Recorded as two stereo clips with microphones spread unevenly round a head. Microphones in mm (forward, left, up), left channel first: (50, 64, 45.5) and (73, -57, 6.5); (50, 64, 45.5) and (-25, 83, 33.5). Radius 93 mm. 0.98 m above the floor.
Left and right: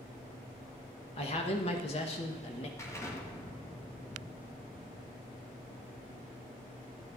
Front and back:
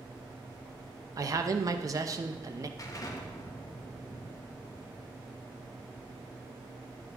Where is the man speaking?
155° left, 0.8 m.